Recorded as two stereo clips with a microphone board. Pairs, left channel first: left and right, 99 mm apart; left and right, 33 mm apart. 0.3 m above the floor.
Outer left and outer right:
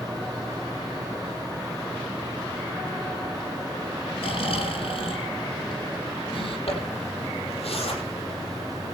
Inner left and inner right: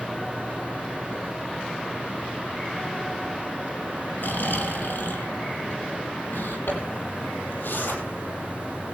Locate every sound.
4.2 s snoring: 70° left (ahead or behind), 2.5 m
6.7 s a zipper: 80° left, 4.5 m